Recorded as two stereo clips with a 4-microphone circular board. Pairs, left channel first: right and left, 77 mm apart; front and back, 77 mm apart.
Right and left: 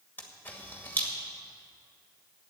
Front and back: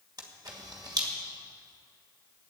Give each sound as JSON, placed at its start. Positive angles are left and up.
{"t": 0.2, "sound": "a camera shutter", "azimuth_deg": -155, "distance_m": 2.0}